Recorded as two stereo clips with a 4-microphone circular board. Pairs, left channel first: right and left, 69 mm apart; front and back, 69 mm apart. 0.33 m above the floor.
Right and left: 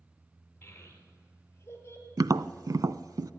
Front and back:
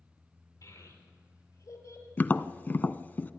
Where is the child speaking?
25° right, 5 m; by 2.1 s 35° right, 4.5 m.